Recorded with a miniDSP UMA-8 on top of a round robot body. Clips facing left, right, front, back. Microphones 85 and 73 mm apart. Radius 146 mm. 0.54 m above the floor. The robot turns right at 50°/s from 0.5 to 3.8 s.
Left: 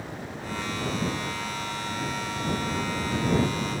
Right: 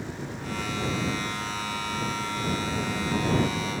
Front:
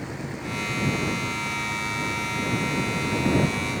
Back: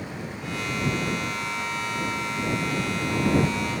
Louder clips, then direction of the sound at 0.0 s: Right 1 dB, front 1 dB; 70° right.